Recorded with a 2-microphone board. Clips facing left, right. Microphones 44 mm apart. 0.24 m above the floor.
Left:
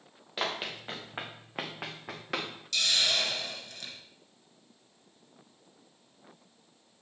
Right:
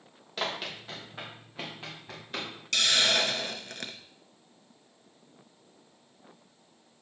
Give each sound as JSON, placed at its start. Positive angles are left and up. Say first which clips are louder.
{"t": 0.4, "sound": "running footsteps", "louder": "even", "side_deg": 10, "distance_m": 1.7}
{"t": 2.7, "sound": "a hiss", "louder": "right 3 dB", "side_deg": -55, "distance_m": 0.6}